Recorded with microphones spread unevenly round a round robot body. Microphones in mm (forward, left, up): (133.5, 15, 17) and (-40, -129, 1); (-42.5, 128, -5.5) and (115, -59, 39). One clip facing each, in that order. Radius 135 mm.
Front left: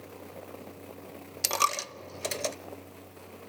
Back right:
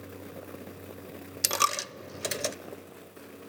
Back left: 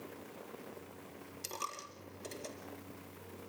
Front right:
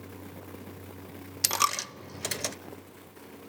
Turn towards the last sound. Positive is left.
turn(degrees=-65)